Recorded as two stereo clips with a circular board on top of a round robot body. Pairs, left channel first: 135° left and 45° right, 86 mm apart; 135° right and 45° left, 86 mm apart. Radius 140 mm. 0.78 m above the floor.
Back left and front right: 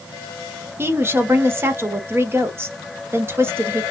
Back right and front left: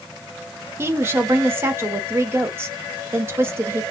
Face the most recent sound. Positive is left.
turn(degrees=0)